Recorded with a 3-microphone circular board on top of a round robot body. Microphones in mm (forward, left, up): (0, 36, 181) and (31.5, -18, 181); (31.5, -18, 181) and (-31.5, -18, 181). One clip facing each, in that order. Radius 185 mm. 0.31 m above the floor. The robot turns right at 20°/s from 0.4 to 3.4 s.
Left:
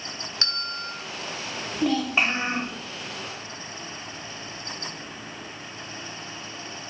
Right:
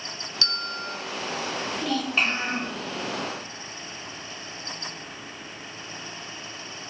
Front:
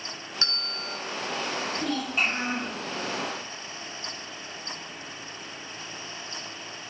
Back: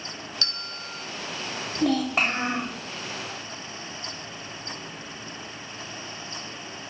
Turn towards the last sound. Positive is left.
turn(degrees=-155)